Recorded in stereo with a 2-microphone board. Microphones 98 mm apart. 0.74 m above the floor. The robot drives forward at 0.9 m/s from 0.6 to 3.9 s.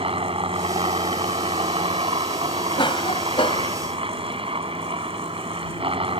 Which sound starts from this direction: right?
A helicopter, at 0.0 s.